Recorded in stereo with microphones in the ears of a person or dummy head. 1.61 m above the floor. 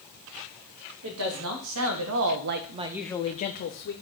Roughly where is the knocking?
No knocking in this recording.